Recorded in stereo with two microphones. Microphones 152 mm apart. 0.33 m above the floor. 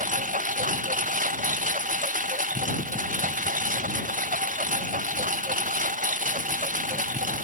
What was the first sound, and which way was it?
A lawn mower, 60° right (ahead or behind).